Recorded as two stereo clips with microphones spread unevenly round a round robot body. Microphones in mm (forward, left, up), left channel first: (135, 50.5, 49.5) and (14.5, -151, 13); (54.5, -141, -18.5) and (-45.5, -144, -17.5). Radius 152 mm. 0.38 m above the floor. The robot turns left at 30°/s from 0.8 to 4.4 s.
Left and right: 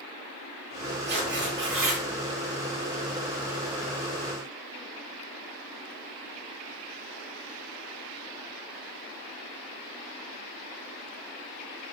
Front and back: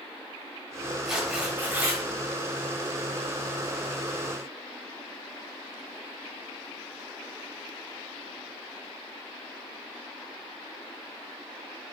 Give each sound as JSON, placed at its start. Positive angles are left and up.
{"t": 1.1, "sound": "tearing paper", "azimuth_deg": -95, "distance_m": 1.6}